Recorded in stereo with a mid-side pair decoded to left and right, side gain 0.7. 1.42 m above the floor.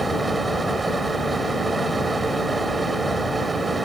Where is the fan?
15° right.